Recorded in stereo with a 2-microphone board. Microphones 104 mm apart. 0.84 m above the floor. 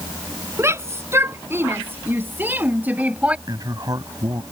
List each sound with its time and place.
0.6 s a shout: 25° right (ahead or behind); by 3.4 s 10° right (ahead or behind)
3.5 s a man speaking: 40° right (ahead or behind)